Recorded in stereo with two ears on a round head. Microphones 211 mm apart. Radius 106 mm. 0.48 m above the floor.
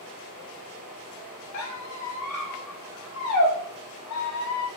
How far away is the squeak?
About 0.8 m.